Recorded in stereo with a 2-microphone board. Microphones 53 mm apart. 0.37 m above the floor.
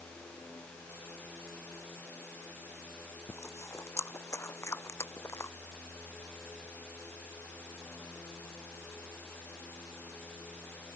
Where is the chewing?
55° left (ahead or behind).